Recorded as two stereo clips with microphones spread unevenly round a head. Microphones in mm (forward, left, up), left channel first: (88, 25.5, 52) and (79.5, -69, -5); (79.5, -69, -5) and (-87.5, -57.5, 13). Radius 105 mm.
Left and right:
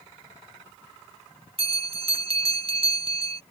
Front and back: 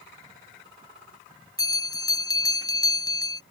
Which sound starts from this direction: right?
A bell, at 1.6 s.